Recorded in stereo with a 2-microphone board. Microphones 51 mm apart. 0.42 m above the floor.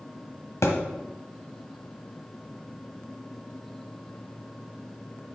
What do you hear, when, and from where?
0.6 s a thud: 75° left (ahead or behind), 1.3 m